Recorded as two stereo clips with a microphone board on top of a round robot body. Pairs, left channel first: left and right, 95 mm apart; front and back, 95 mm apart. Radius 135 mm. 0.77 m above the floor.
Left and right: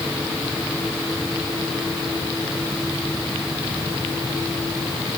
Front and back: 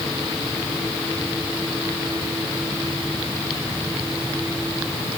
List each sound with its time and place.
Only background noise.